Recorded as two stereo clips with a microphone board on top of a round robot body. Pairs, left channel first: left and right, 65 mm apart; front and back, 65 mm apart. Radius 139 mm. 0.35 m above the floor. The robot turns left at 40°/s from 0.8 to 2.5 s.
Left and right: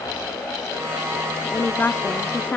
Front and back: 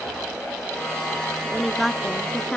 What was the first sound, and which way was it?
A woman speaking, 105° left.